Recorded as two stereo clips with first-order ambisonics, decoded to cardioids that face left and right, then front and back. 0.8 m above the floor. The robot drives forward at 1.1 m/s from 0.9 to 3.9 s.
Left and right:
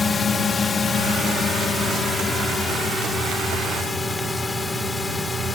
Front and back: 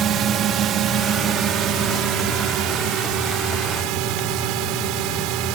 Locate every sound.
0.0 s a drone: 155° left; by 5.6 s 170° left